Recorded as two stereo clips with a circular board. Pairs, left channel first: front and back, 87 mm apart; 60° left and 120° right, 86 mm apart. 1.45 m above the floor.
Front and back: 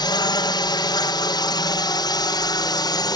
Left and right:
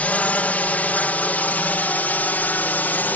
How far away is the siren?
I don't hear a siren.